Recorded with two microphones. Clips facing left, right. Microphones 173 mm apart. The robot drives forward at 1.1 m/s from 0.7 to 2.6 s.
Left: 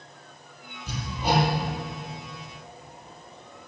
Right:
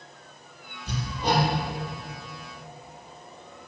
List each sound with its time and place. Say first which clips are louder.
0.9 s hammering: even; 5° left (ahead or behind), 5.5 m; by 1.5 s 10° left (ahead or behind), 5 m